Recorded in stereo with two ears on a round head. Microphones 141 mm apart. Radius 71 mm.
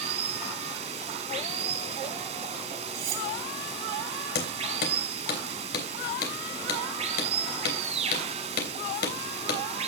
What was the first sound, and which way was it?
Running water, 45° right (ahead or behind).